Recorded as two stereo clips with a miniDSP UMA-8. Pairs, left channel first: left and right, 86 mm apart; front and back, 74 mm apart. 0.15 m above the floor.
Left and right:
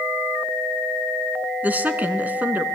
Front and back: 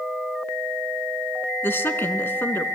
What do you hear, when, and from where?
1.6 s a woman speaking: 35° right, 1.8 m